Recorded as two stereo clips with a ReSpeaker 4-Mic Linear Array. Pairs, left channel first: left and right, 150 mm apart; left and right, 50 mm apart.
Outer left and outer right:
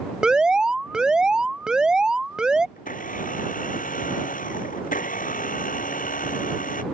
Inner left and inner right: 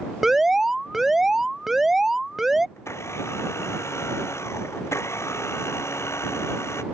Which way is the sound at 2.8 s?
65° left (ahead or behind).